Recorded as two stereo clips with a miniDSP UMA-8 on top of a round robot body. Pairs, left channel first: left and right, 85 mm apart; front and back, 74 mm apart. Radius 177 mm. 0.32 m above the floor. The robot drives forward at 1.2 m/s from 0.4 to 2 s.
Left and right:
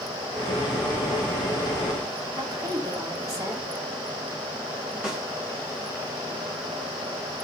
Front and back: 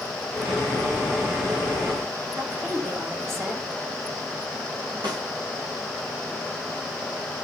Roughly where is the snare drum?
Behind.